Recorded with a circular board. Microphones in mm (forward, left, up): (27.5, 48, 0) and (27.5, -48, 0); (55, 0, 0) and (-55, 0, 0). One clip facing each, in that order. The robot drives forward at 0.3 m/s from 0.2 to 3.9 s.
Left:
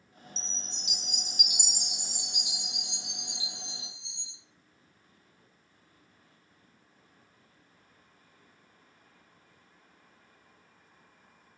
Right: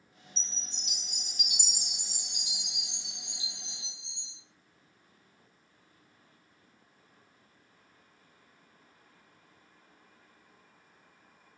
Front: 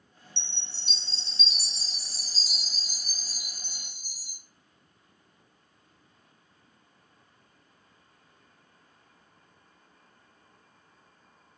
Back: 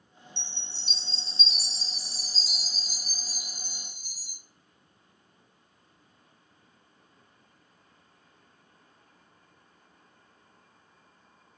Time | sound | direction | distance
0.4 | a chime | 105° right | 1.3 m